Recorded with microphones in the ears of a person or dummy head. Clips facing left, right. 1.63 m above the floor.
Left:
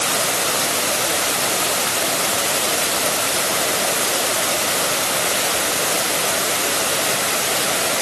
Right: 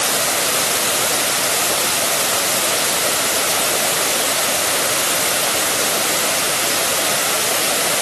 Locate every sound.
Only background noise.